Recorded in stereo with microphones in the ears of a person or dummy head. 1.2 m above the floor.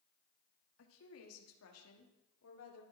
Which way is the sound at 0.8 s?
70° left (ahead or behind).